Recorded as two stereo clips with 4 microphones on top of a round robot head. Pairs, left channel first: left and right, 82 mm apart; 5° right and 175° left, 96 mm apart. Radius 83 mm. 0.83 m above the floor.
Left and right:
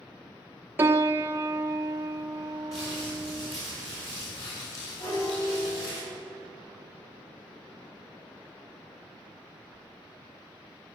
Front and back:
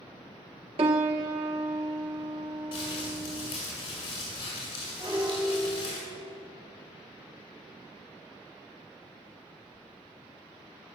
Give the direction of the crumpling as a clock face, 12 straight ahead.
11 o'clock.